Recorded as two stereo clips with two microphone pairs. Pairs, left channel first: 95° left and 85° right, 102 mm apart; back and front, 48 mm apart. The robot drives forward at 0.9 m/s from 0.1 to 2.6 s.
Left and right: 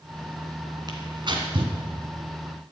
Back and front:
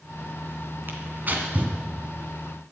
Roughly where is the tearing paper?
Ahead right.